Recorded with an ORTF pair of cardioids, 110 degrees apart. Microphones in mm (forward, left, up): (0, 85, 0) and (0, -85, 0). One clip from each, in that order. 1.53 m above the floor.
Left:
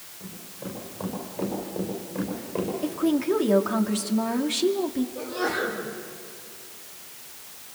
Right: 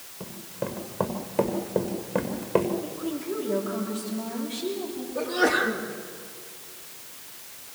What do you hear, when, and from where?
0.2 s running footsteps: 65° right, 6 m
2.8 s a woman speaking: 60° left, 2.5 m
5.2 s a sneeze: 55° right, 3.5 m